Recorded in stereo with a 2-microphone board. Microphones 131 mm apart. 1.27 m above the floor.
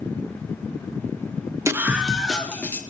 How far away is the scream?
About 0.9 m.